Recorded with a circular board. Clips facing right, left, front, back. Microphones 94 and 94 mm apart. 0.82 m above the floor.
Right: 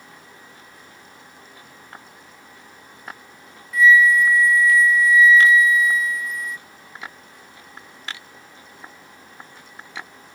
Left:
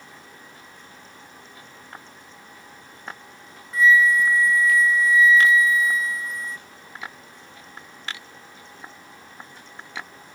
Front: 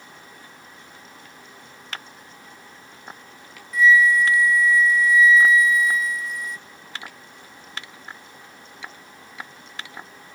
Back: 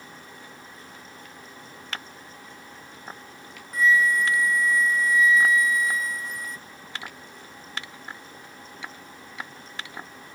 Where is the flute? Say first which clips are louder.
Right 3 dB, front 5 dB; 140° left.